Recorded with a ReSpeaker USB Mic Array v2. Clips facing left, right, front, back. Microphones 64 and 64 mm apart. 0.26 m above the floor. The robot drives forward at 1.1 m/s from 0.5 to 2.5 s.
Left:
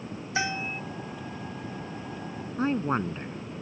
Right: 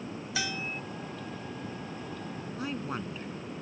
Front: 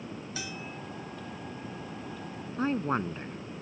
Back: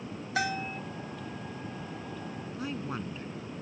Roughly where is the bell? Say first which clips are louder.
Left 5 dB, back 13 dB; behind left.